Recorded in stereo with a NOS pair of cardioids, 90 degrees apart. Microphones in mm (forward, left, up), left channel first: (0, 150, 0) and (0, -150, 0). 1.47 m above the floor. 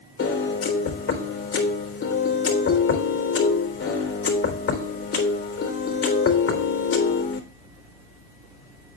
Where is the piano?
50° left, 4 m.